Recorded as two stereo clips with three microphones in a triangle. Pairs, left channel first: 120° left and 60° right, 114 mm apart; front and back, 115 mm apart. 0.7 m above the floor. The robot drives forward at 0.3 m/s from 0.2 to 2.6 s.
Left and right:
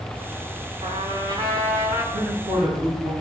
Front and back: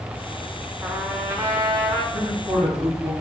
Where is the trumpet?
100° right, 0.6 m; by 2.0 s 130° right, 0.8 m.